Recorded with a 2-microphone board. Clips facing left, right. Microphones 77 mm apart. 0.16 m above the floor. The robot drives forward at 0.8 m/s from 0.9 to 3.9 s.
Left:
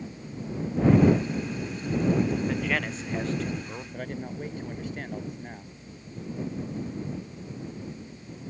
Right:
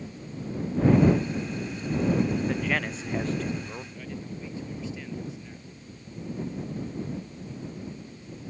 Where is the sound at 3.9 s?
55° left (ahead or behind).